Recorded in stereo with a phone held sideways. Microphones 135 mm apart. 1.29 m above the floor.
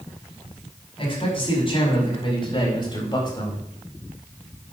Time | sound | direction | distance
1.0 | a man speaking | 45° left (ahead or behind) | 5.5 m